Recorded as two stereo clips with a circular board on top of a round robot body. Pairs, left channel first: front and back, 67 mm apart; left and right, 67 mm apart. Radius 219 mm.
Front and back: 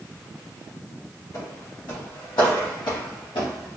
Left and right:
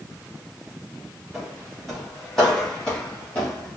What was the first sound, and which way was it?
Footsteps, straight ahead.